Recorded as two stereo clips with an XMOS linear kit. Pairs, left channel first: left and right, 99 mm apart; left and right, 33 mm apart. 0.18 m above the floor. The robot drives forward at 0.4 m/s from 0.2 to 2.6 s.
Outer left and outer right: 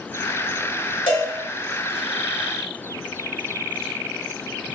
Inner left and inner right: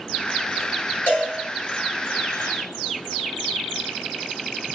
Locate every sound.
1.1 s a cowbell: 60° left (ahead or behind), 1.9 m